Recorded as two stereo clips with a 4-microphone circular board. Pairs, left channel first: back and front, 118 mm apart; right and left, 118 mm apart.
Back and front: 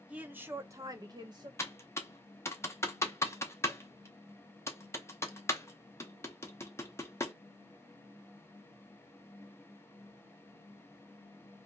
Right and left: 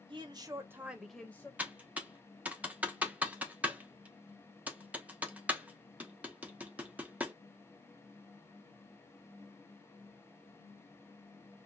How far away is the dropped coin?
I don't hear a dropped coin.